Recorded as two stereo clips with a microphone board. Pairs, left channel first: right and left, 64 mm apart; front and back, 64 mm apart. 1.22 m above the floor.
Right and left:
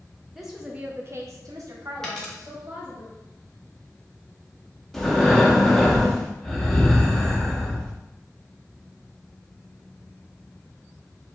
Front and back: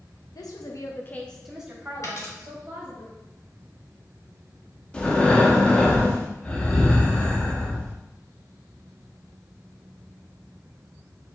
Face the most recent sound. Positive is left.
turn(degrees=-20)